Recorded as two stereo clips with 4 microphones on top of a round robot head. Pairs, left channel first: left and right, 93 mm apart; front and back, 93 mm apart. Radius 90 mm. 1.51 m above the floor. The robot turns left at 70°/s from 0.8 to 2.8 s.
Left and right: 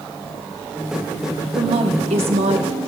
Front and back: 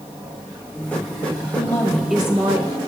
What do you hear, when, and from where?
1.5 s a woman speaking: 55° right, 1.0 m; by 2.8 s 140° right, 1.0 m